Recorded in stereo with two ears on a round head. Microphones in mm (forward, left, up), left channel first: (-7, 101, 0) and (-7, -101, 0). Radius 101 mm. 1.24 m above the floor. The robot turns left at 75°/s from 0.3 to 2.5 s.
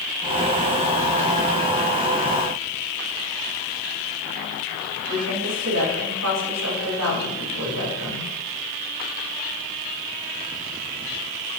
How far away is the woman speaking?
About 7 m.